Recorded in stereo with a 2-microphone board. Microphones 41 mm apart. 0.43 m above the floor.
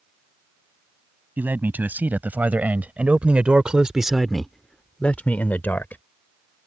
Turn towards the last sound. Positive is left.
turn(degrees=55)  # may be behind; listen again after turning